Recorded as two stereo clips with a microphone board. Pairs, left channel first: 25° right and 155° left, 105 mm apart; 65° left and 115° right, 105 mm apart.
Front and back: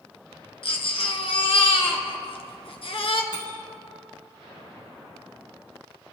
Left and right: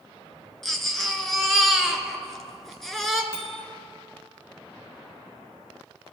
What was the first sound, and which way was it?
A baby crying, 20° right.